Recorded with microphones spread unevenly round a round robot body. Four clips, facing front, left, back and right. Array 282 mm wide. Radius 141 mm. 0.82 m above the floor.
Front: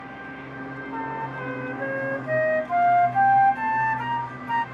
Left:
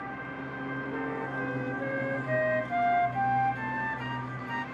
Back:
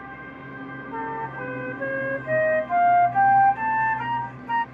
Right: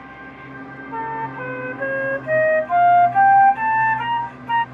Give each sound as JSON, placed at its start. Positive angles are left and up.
{"t": 0.9, "sound": "a flute", "azimuth_deg": -75}